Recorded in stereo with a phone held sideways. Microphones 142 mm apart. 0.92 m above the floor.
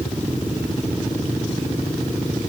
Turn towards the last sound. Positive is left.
No sound to turn to.